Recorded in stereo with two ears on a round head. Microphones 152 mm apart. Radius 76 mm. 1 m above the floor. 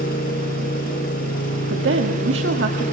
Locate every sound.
0.0 s an engine running: 60° left (ahead or behind), 6.5 m
1.7 s a woman speaking: 80° right, 1.8 m